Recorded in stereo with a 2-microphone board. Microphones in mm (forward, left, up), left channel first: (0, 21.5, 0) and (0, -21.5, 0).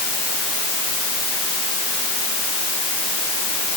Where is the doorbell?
No doorbell in this recording.